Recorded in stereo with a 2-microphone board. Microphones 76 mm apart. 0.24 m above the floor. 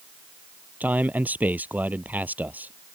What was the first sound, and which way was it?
A man speaking, 20° right (ahead or behind).